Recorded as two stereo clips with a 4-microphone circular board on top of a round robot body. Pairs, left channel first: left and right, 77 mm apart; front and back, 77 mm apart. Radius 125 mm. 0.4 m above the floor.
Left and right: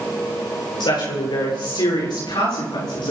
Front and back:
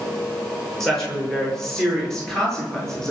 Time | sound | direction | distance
0.8 | a woman speaking | 85° left | 9.5 m